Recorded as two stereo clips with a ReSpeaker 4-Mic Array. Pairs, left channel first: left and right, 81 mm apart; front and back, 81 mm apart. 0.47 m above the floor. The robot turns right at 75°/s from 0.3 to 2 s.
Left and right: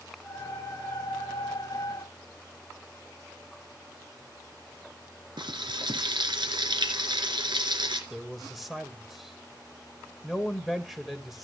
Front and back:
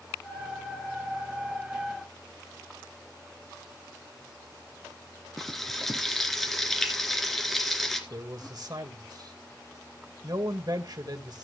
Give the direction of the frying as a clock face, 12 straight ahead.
3 o'clock.